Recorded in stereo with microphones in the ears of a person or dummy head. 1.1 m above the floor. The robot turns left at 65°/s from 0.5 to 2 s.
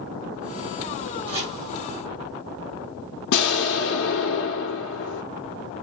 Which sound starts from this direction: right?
Chopping, at 1.3 s.